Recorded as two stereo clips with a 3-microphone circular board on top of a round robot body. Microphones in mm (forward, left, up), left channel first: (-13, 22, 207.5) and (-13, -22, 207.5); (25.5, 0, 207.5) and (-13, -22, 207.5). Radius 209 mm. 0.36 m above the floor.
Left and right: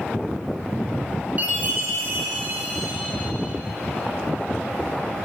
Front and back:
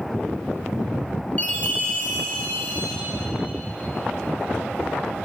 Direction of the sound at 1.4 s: 30° right.